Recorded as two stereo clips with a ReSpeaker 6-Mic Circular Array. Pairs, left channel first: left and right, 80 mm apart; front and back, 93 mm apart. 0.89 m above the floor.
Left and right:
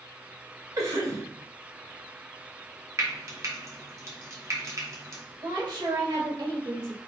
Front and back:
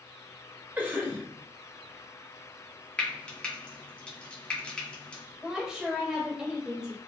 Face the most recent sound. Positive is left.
turn(degrees=-100)